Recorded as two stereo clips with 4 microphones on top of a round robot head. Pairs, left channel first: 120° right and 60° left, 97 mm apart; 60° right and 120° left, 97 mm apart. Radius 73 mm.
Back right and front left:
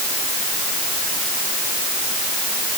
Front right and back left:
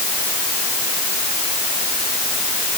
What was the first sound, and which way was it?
Only background noise.